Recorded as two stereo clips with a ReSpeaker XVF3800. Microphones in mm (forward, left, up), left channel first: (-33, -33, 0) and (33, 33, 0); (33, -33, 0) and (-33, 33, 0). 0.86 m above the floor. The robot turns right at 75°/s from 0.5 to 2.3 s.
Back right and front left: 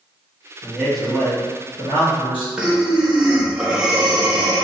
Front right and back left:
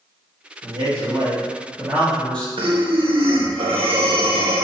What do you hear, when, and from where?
0.6 s a man speaking: 110° left, 1.5 m; by 2.5 s 125° right, 1.5 m
2.6 s breathing: 125° left, 0.6 m